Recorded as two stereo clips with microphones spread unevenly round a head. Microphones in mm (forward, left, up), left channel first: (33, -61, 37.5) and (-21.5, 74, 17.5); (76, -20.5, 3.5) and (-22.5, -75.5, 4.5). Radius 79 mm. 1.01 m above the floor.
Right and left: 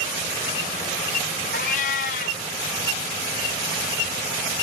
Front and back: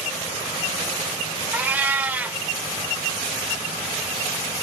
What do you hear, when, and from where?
1.5 s a cat meowing: 75° right, 0.5 m